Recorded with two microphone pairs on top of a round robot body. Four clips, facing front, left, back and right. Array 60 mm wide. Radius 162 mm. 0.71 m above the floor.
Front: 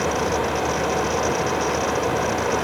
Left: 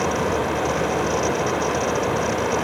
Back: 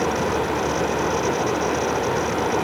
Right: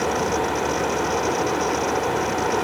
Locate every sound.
Only background noise.